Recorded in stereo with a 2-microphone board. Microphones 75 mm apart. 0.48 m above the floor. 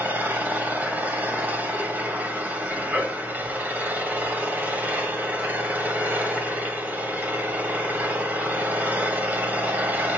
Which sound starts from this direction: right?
An engine running, at 0.0 s.